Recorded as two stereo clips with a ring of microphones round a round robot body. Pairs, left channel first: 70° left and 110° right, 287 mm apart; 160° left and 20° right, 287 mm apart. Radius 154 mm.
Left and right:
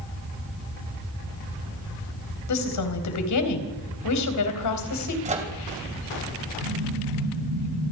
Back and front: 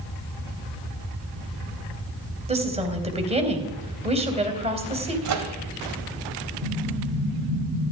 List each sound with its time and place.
2.5 s a woman speaking: 45° left, 3 m
5.2 s a microwave: 45° right, 2.5 m
6.6 s an explosion: 95° right, 8 m